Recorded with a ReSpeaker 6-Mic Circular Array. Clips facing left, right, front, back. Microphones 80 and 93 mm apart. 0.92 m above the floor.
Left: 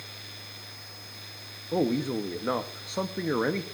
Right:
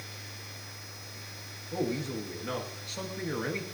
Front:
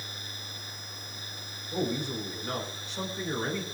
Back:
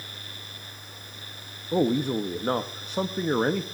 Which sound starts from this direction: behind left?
A man speaking, at 1.7 s.